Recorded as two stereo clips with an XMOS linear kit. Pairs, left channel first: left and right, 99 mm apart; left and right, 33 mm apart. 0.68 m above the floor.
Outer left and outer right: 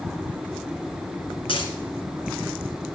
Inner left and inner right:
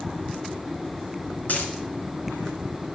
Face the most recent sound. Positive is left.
turn(degrees=65)  # may be behind; listen again after turning